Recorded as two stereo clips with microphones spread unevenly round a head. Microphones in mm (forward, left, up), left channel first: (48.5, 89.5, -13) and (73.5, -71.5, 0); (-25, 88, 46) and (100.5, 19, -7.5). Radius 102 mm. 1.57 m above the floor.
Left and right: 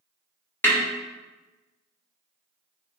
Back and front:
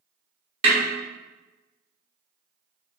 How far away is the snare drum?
About 1.4 m.